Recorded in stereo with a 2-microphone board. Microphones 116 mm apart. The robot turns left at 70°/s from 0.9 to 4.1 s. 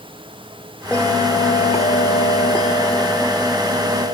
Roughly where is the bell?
Behind.